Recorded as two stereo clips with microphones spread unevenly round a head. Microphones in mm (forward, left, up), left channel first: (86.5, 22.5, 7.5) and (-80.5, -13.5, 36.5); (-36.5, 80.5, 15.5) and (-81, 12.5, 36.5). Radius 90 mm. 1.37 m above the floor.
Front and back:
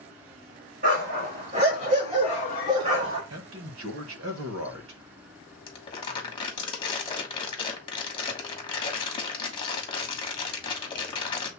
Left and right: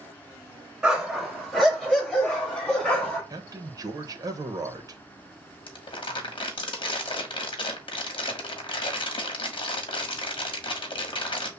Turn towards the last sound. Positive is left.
turn(degrees=80)